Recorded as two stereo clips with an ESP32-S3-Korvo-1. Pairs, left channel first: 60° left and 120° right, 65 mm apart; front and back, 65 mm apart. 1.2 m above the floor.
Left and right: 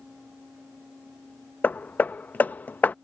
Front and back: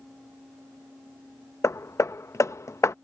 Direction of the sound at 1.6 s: 5° left.